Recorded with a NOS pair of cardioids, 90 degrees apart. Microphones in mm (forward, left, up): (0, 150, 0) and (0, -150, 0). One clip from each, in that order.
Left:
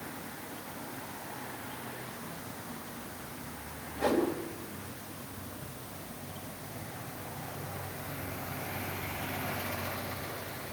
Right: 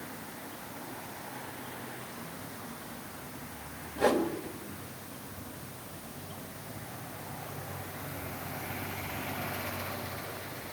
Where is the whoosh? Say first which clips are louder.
Right 2 dB; 30° right, 3.5 m.